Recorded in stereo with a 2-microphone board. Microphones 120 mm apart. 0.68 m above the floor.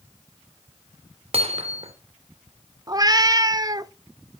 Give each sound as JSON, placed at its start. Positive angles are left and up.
{"t": 1.3, "sound": "hammering", "side_deg": -55, "distance_m": 2.0}
{"t": 2.9, "sound": "a cat meowing", "side_deg": -30, "distance_m": 0.6}